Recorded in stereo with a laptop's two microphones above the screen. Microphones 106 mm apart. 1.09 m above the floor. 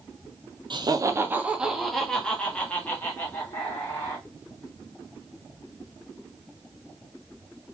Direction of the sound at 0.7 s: 50° right (ahead or behind).